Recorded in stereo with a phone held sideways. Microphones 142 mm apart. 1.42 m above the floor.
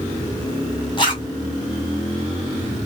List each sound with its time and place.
1.0 s a zipper: 35° left (ahead or behind), 1.7 m